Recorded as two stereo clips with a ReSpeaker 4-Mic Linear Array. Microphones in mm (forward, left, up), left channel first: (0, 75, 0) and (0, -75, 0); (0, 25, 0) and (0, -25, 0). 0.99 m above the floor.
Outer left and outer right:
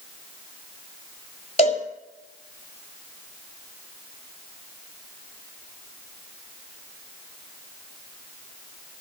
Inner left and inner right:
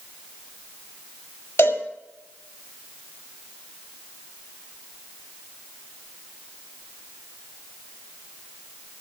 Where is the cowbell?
45° left (ahead or behind), 5.5 m.